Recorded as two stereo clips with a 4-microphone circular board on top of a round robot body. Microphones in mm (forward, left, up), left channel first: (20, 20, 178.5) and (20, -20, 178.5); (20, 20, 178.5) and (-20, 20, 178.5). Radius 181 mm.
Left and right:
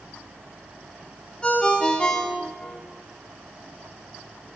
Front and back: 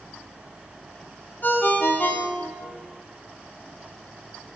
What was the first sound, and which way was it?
A ringtone, 25° left.